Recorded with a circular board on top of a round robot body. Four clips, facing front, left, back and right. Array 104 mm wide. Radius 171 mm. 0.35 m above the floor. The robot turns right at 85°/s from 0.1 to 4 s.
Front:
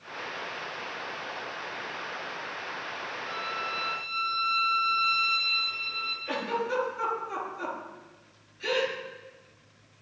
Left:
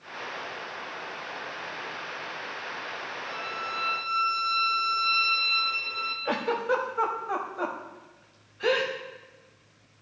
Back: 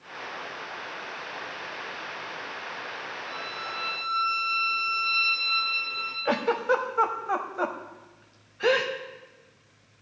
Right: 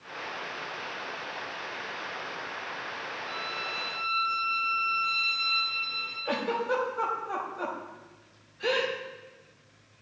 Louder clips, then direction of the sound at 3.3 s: Left 4 dB, front 5 dB; 50° left.